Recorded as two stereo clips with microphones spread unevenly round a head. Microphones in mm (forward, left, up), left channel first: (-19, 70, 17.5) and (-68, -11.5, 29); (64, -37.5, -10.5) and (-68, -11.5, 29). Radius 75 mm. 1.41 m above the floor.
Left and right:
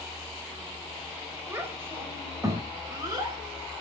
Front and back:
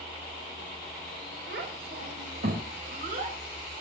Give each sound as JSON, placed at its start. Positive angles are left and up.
{"t": 1.5, "sound": "a child speaking", "azimuth_deg": 170, "distance_m": 6.0}